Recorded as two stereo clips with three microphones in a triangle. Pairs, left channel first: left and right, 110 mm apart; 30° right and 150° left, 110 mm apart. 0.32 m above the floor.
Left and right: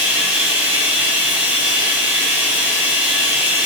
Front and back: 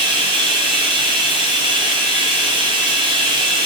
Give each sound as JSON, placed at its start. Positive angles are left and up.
{"t": 0.0, "sound": "running water", "azimuth_deg": -165, "distance_m": 3.0}